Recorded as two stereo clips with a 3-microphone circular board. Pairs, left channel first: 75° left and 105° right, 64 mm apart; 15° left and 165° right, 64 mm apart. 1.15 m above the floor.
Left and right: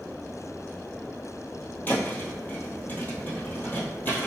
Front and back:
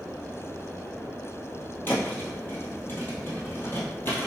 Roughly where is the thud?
Ahead left.